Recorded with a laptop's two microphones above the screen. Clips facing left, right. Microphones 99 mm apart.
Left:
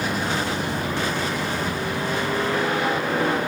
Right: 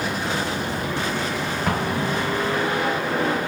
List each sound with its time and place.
1.7 s an explosion: 80° right, 1.1 m